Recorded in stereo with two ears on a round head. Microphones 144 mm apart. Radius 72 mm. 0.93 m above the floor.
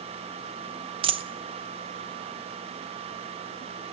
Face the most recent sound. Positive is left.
turn(degrees=-35)  # may be behind; listen again after turning